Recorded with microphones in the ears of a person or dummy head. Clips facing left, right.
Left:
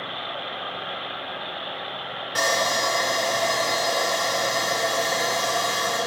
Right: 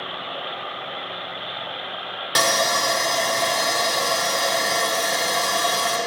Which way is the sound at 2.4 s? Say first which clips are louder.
Right 2 dB; 70° right (ahead or behind).